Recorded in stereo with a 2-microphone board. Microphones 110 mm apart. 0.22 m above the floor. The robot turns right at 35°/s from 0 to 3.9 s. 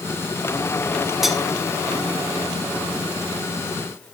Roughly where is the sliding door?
I don't hear a sliding door.